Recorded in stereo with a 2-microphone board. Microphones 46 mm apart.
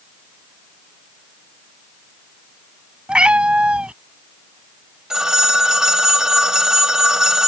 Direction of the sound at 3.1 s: 25° right (ahead or behind).